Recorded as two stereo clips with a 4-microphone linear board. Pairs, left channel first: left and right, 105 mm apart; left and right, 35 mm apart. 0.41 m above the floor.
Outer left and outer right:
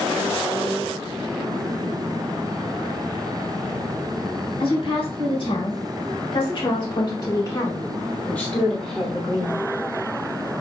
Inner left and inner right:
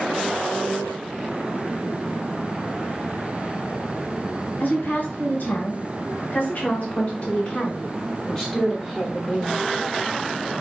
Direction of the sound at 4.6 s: 60° left (ahead or behind).